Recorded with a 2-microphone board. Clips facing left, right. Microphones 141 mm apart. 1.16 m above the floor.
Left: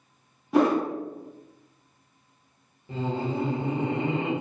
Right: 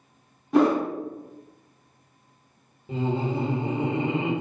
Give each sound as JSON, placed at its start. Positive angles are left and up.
{"t": 0.5, "sound": "a whoosh", "side_deg": 5, "distance_m": 0.6}
{"t": 2.9, "sound": "laughter", "side_deg": -20, "distance_m": 0.9}